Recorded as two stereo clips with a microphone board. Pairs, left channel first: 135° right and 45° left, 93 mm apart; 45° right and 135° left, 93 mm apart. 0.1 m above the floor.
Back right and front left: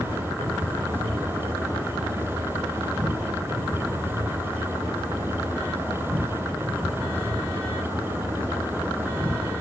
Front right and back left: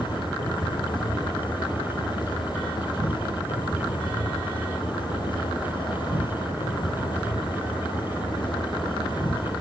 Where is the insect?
20° right, 2.5 m.